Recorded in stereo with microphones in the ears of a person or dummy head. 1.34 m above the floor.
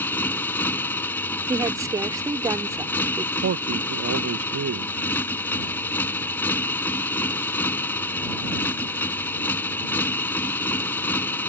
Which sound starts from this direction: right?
A man speaking, at 3.4 s.